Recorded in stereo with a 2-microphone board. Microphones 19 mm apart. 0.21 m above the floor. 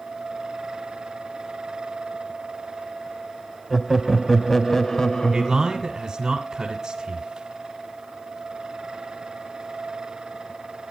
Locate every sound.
3.7 s laughter: 20° right (ahead or behind), 1.0 m; by 6.0 s 55° left (ahead or behind), 1.5 m
5.3 s a man speaking: 40° right (ahead or behind), 1.9 m